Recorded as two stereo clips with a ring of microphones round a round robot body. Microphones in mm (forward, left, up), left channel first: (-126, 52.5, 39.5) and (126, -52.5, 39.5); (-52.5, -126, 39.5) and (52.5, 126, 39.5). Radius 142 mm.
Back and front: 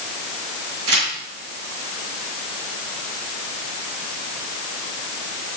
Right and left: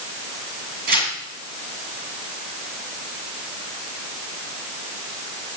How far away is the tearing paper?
About 9 m.